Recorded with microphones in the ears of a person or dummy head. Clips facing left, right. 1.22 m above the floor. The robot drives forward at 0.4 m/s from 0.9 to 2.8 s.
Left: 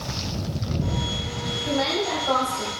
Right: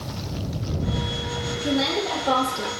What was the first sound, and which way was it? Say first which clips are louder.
A woman speaking: right 1 dB; 55° right (ahead or behind).